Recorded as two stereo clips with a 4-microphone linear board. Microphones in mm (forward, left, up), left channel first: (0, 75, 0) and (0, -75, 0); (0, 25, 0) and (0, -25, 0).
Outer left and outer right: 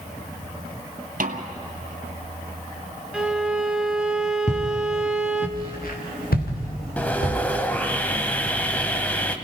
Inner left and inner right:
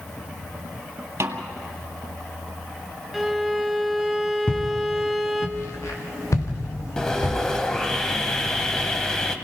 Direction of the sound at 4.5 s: 50° left (ahead or behind).